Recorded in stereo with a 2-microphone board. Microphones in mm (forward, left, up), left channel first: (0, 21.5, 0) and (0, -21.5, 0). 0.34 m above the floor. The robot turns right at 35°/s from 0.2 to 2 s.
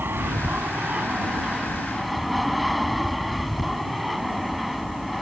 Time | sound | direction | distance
0.0 | an aircraft | 65° right | ?